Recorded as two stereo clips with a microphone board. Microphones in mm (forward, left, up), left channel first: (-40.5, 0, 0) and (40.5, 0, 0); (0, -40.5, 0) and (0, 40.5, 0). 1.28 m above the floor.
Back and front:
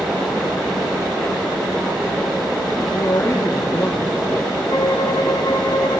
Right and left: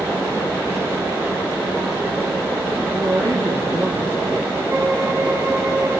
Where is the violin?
145° left, 2.5 m.